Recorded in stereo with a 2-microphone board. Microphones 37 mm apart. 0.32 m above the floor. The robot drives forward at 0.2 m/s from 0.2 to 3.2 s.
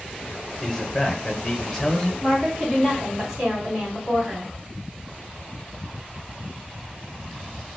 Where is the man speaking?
10° left (ahead or behind), 1.0 m.